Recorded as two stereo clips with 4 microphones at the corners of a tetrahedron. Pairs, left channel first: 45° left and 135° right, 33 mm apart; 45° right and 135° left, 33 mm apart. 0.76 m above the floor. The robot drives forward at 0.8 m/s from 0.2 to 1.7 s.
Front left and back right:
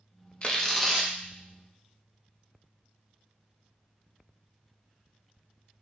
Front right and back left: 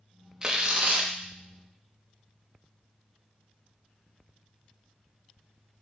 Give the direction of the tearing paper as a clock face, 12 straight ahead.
9 o'clock.